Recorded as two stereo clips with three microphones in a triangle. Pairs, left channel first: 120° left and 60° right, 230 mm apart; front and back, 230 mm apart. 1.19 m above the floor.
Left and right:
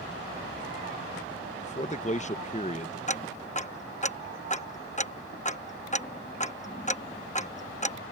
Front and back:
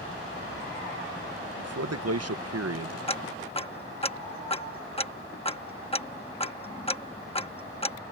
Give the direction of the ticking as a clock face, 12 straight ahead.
10 o'clock.